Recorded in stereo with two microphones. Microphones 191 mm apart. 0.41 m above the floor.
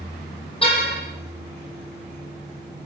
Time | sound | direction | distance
0.6 | a car horn | 30° left (ahead or behind) | 7 m